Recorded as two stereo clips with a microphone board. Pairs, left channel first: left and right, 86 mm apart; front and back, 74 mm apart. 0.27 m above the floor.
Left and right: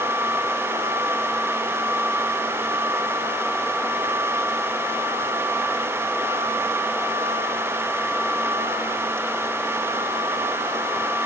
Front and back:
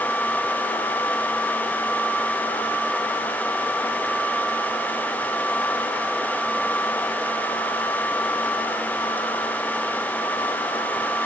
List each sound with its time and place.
Only background noise.